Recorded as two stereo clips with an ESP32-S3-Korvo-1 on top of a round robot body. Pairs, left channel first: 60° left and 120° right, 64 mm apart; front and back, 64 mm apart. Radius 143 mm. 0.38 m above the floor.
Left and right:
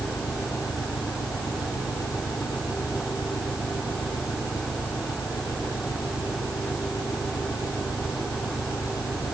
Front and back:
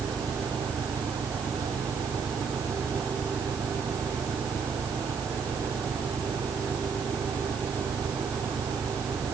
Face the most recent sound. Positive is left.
turn(degrees=70)